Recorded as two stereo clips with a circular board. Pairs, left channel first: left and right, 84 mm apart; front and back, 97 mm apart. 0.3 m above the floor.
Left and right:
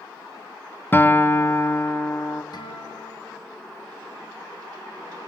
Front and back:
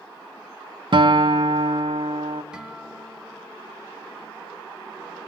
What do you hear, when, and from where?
0.9 s a guitar: 150° left, 0.8 m
2.5 s a guitar: 100° left, 3 m